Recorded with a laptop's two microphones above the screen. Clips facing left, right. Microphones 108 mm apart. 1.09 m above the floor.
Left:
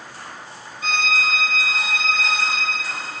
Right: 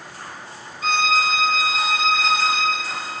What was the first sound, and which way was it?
A violin, 35° right (ahead or behind).